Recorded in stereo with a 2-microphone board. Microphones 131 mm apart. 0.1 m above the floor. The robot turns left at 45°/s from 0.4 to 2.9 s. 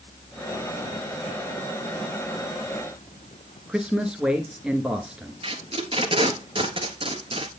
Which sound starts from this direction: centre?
A man speaking, at 3.7 s.